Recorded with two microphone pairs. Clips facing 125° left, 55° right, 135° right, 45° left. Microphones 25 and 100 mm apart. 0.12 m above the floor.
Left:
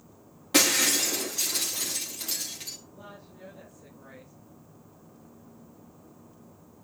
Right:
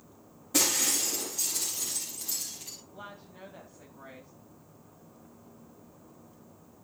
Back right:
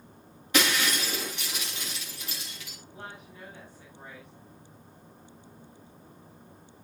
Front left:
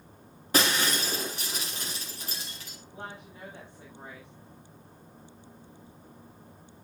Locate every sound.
0.5 s breaking glass: 95° left, 7 m
2.9 s a woman speaking: 20° right, 9.5 m